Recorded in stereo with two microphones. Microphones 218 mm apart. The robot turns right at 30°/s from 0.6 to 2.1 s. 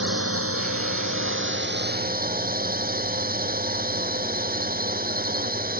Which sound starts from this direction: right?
A drone, at 0.0 s.